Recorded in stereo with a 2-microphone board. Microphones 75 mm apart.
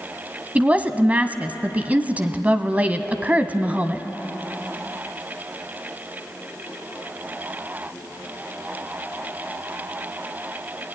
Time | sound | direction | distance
0.6 | a woman speaking | 20° right (ahead or behind) | 1.0 m